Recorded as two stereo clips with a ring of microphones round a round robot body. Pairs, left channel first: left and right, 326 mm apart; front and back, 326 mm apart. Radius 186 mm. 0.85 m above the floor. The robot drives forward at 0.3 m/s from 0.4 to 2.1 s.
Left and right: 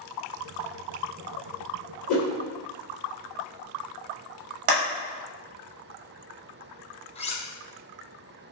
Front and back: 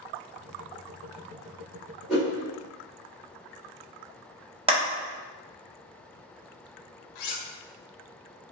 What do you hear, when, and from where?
2.1 s a whoosh: 90° left, 1.5 m
4.7 s a clap: 105° right, 0.9 m
7.2 s cutlery clinking: 15° left, 0.6 m